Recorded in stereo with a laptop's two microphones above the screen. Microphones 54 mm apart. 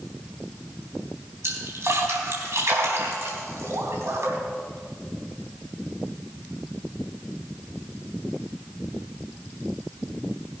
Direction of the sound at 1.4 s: 65° right (ahead or behind).